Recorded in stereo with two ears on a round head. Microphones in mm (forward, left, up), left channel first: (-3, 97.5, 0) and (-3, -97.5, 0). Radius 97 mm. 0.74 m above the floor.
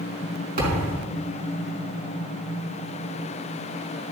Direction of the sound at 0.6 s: 45° right (ahead or behind).